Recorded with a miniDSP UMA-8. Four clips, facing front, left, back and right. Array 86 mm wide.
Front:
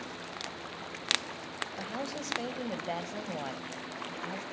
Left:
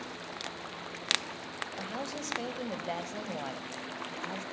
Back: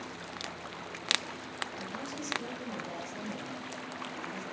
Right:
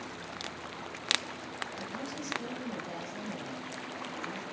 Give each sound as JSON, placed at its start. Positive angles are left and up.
{"t": 1.8, "sound": "a woman speaking", "azimuth_deg": 40, "distance_m": 3.5}